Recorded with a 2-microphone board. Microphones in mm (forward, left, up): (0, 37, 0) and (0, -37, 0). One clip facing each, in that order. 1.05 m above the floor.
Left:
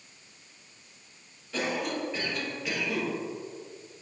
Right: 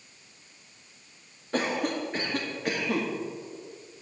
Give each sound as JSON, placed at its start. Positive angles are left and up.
{"t": 1.5, "sound": "a cough", "side_deg": -50, "distance_m": 1.6}